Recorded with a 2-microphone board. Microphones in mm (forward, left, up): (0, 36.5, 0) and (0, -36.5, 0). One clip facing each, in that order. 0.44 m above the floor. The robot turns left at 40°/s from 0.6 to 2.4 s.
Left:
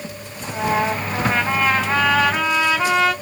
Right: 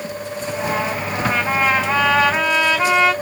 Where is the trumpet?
35° left, 2.5 m; by 3.1 s 35° right, 2.5 m.